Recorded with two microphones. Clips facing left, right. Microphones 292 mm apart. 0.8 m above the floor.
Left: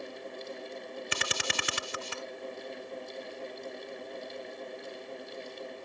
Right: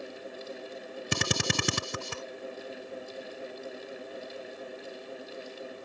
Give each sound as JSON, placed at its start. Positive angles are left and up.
{"t": 1.1, "sound": "a drill", "side_deg": -50}